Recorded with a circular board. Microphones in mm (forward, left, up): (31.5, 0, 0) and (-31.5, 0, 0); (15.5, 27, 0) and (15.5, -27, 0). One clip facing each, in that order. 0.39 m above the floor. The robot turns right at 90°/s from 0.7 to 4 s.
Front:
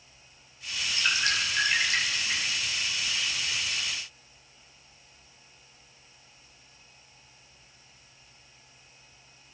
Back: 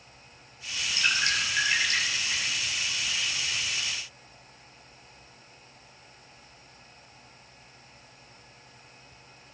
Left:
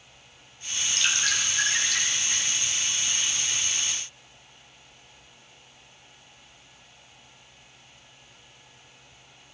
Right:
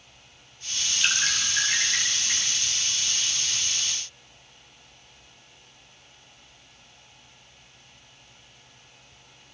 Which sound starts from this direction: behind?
Dripping, at 1.0 s.